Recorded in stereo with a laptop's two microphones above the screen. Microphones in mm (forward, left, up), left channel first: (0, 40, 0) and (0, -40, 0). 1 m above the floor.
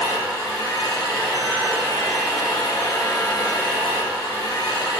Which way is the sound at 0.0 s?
60° left (ahead or behind).